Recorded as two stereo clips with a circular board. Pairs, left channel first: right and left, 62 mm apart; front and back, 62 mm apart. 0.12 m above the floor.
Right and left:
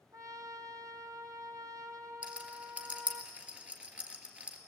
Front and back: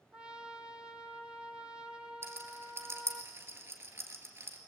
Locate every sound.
0.1 s a trumpet: 105° left, 1.0 m
2.2 s a rattle: 155° left, 1.9 m